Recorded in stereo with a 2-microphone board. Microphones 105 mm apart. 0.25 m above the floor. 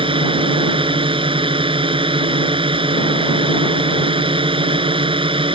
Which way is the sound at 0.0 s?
55° right (ahead or behind).